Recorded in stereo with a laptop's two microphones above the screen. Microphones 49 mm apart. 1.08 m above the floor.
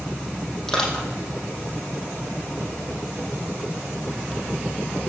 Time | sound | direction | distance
0.7 | crushing | 5° left (ahead or behind) | 6 m